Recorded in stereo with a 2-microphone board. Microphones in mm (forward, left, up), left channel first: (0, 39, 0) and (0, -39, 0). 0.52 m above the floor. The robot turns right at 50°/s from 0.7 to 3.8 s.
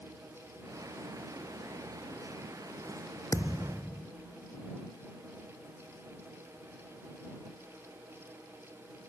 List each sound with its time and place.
3.3 s a thud: 45° left (ahead or behind); by 4.1 s 20° left (ahead or behind)